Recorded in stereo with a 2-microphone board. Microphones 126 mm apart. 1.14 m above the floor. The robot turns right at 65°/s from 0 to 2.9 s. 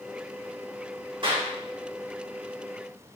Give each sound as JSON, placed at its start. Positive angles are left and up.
{"t": 1.2, "sound": "a clap", "side_deg": -40, "distance_m": 3.5}